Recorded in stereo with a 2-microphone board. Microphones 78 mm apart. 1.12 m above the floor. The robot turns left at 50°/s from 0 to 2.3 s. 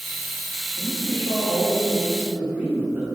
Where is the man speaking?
80° right, 3.5 m; by 3.0 s 155° right, 3.5 m.